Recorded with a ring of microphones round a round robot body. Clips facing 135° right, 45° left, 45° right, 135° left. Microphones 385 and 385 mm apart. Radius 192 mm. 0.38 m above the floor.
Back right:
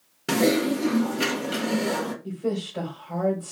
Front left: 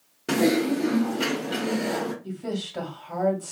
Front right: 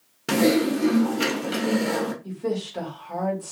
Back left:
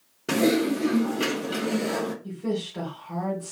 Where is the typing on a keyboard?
85° right, 0.7 m.